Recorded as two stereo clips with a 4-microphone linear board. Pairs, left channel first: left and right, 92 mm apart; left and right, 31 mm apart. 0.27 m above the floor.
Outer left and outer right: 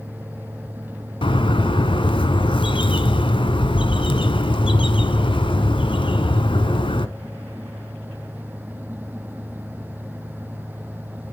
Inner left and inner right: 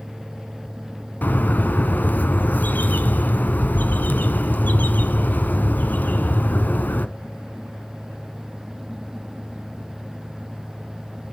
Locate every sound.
1.2 s a bird: 70° left (ahead or behind), 1.0 m